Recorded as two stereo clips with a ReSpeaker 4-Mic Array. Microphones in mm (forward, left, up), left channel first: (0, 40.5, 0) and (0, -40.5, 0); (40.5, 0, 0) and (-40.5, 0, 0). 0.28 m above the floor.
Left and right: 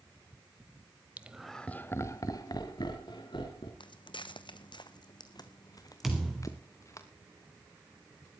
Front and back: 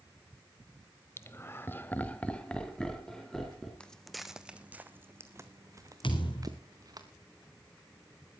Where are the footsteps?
80° left, 0.9 m; by 7.0 s 140° left, 2.0 m.